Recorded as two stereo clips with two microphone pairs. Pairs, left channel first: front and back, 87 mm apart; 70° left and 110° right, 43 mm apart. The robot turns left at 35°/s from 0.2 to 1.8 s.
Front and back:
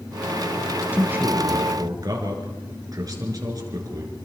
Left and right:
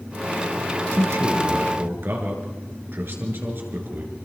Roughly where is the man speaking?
Right.